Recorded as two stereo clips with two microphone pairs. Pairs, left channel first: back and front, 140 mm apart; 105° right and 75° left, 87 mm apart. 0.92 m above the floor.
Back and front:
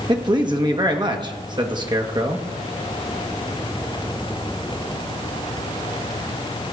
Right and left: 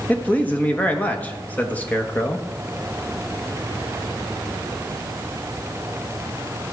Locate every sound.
0.1 s a man speaking: 40° right, 1.2 m